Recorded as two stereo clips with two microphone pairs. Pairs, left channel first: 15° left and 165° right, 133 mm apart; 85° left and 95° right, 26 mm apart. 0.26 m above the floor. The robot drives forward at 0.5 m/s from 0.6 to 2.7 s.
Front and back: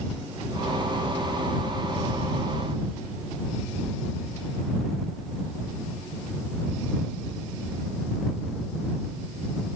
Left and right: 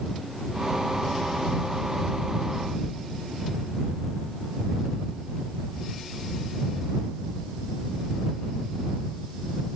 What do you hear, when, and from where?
Only background noise.